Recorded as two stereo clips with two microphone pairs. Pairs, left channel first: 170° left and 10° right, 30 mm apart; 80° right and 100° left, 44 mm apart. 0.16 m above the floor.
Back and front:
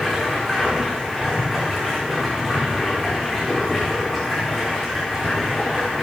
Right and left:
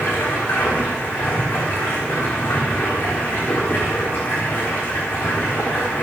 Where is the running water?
110° right, 7.5 m.